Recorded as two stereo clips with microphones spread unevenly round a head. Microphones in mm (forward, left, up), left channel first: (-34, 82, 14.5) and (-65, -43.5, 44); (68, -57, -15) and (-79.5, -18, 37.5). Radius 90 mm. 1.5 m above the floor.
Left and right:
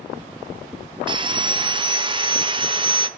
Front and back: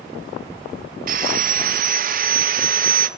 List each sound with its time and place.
1.1 s sawing: 160° right, 1.1 m